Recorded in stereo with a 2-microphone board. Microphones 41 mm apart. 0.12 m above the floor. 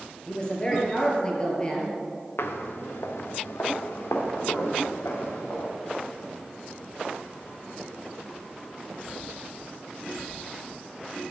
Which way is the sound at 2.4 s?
75° left (ahead or behind).